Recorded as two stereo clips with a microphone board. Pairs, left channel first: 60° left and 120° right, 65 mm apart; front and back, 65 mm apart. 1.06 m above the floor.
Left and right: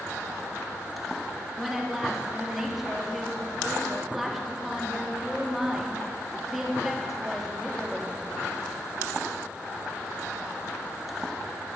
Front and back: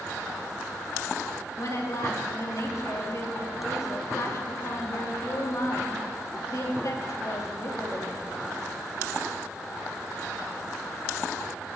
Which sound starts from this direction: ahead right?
A woman speaking, at 1.6 s.